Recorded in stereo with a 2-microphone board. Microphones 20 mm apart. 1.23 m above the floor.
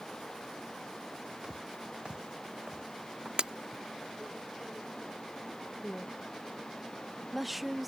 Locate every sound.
1.4 s footsteps: 55° right (ahead or behind); by 3.3 s 45° right (ahead or behind)
3.4 s breaking glass: 60° right (ahead or behind)
5.8 s a woman speaking: 5° right (ahead or behind)